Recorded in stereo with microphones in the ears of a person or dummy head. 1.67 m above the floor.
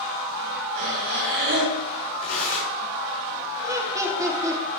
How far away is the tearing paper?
About 4 m.